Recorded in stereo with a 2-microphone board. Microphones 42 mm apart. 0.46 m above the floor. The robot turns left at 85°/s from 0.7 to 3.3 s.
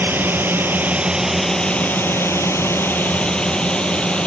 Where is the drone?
55° right (ahead or behind); by 4.3 s 25° left (ahead or behind).